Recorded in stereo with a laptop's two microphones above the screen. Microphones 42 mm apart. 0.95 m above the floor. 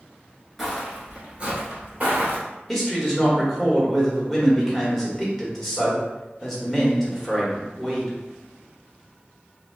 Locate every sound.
0.6 s footsteps: centre (ahead or behind), 0.9 m; by 2.4 s 45° right (ahead or behind), 1.3 m
2.7 s a man speaking: 10° left (ahead or behind), 1.3 m